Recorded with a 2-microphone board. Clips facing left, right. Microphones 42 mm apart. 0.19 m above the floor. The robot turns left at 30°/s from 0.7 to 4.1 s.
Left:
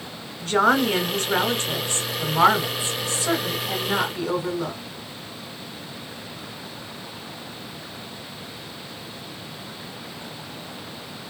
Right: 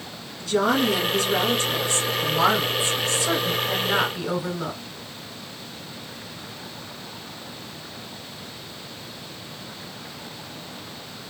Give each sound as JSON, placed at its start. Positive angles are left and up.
{"t": 0.4, "sound": "a woman speaking", "azimuth_deg": 100, "distance_m": 1.7}